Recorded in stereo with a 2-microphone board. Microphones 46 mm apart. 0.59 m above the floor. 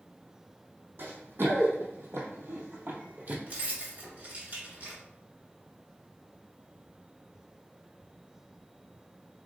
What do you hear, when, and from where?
1.0 s running footsteps: 60° right (ahead or behind), 1.7 m; by 3.4 s 40° right (ahead or behind), 1.1 m
3.5 s keys jangling: 45° right (ahead or behind), 1.4 m